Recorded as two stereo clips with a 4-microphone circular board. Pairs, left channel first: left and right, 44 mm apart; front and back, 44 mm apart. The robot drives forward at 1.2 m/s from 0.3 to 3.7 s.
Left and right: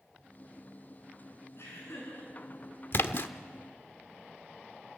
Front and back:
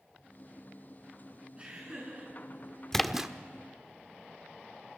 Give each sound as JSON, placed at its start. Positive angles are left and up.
{"t": 1.6, "sound": "laughter", "azimuth_deg": 115, "distance_m": 8.0}
{"t": 2.9, "sound": "a splash", "azimuth_deg": 80, "distance_m": 0.9}